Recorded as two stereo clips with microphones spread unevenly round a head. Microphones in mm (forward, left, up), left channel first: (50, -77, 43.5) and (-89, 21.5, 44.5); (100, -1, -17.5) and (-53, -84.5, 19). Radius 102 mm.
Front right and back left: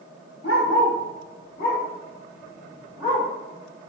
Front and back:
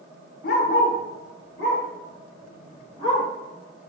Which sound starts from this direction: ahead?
A dog barking, at 0.4 s.